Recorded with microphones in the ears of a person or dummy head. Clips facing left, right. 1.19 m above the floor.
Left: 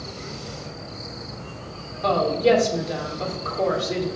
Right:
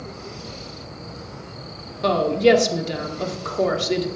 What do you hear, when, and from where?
2.0 s a woman speaking: 45° right (ahead or behind), 1.5 m